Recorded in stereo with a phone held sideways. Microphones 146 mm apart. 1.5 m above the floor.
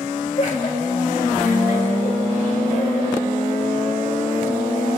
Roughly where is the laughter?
Left.